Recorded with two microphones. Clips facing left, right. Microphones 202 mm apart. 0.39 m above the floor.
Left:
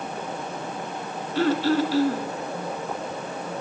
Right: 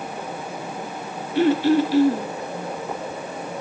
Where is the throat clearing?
15° right (ahead or behind), 3 m.